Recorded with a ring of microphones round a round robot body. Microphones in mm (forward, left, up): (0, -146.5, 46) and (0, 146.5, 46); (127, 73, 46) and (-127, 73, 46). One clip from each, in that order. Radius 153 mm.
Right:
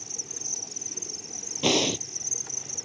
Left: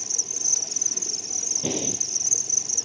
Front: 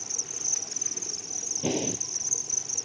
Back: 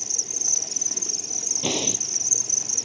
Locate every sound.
0.0 s an insect: 135° left
1.6 s breathing: 125° right